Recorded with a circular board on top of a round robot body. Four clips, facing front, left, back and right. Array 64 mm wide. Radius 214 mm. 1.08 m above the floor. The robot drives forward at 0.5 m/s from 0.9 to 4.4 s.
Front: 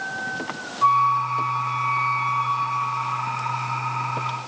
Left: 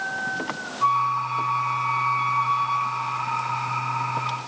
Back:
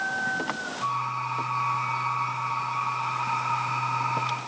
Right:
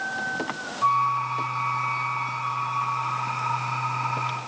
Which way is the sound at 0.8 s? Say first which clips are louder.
Left 1 dB, front 12 dB; 50° left.